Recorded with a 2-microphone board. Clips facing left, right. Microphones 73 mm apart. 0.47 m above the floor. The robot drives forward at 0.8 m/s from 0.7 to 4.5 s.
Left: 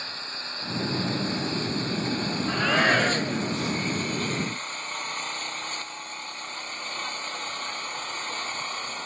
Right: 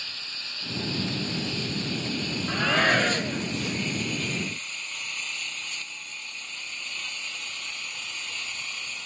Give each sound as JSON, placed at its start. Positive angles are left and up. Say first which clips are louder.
{"t": 0.0, "sound": "an engine running", "louder": "left 4 dB", "side_deg": 35}
{"t": 2.5, "sound": "a shout", "louder": "left 1 dB", "side_deg": 5}